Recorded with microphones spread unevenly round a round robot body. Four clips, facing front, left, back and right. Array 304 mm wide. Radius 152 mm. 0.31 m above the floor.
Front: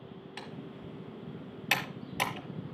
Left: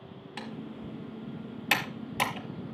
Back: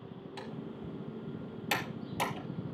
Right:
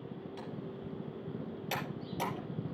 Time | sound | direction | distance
0.4 | typing on a keyboard | 65° left | 5 m